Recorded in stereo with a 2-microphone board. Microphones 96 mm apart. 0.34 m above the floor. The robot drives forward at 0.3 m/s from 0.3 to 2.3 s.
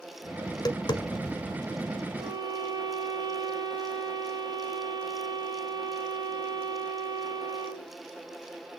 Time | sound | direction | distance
0.5 | tapping | 45° left (ahead or behind) | 0.7 m
2.2 | a violin | 50° right (ahead or behind) | 3.5 m